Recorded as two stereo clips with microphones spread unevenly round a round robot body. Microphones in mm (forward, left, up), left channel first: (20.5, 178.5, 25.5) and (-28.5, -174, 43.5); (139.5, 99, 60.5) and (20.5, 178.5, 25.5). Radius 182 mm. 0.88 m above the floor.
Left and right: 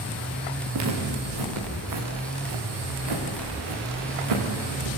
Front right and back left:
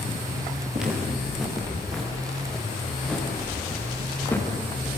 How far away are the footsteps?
About 5 m.